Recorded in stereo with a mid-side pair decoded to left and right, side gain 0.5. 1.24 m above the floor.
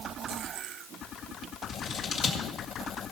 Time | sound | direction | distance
1.7 | scissors | 60° left | 1.8 m